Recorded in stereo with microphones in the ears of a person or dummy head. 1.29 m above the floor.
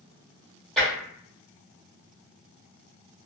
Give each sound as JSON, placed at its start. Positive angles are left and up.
{"t": 0.8, "sound": "tapping", "side_deg": -5, "distance_m": 1.4}